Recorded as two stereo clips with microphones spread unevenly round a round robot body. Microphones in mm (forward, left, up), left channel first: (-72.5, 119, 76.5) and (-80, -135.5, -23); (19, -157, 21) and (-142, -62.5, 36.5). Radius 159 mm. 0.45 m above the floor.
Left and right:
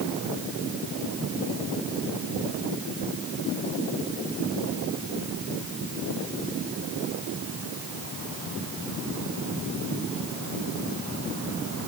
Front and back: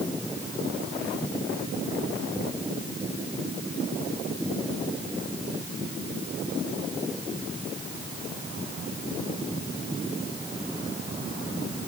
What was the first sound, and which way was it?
Only background noise.